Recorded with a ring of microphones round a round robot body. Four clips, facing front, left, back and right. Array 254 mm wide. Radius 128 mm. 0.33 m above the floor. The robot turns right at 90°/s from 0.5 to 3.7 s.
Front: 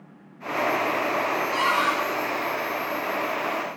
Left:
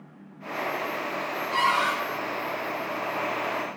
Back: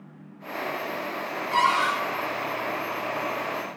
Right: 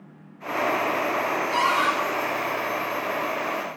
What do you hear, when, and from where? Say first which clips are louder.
1.5 s a cupboard door: even, back 4 dB; 145° right, 2.5 m; by 1.9 s 105° right, 2.5 m